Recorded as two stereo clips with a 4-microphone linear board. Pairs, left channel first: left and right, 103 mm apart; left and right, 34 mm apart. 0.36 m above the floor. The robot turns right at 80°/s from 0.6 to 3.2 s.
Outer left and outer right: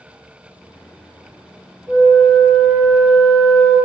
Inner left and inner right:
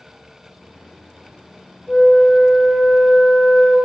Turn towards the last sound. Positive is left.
turn(degrees=-160)